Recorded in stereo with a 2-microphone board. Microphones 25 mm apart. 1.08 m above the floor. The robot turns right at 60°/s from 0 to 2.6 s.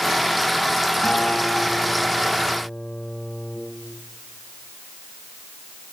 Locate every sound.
1.0 s a guitar: 55° left, 5 m; by 3.6 s 150° left, 5 m